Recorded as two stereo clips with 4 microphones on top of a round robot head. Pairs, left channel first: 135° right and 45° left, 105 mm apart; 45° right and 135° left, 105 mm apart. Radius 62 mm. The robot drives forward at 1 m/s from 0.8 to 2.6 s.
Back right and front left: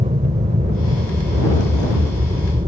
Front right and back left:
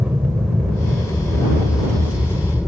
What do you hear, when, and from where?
0.0 s an aircraft: 55° left; by 2.7 s 40° left